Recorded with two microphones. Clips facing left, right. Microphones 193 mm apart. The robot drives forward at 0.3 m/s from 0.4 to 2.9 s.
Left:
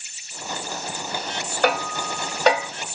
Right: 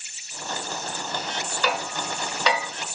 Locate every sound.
1.6 s hammering: 60° left (ahead or behind), 0.9 m; by 2.7 s 45° left (ahead or behind), 1.0 m